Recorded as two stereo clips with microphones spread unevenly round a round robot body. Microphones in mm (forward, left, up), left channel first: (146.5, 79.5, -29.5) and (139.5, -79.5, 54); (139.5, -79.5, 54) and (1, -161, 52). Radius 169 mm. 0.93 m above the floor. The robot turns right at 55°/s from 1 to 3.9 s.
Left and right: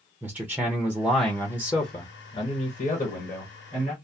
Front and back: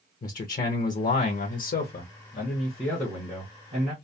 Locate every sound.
0.2 s a man speaking: 5° left, 0.7 m; by 3.9 s 165° left, 0.7 m